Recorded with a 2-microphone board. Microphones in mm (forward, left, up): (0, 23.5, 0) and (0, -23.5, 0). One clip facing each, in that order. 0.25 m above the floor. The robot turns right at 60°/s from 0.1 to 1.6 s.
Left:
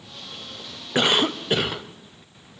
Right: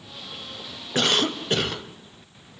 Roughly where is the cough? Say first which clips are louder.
Left 2 dB; centre.